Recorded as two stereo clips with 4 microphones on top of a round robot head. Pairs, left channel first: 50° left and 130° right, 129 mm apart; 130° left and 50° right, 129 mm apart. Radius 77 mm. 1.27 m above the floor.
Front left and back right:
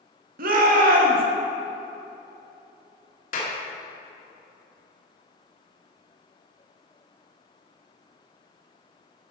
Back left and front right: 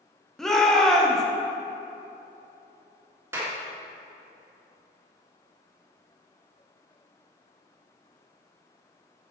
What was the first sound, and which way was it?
A shout, 140° right.